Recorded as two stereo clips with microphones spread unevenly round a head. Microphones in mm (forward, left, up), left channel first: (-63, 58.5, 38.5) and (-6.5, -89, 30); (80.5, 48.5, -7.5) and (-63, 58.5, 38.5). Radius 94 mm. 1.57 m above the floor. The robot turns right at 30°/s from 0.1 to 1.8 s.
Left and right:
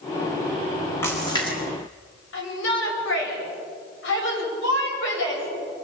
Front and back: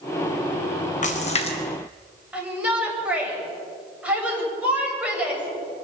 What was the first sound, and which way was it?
A splash, 35° left.